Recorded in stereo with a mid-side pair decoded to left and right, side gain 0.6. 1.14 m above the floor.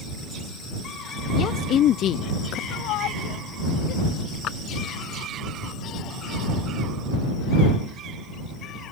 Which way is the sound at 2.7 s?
70° left.